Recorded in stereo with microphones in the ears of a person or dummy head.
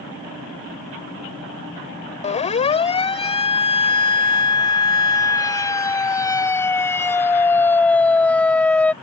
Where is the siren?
30° left (ahead or behind); by 8.9 s 5° left (ahead or behind).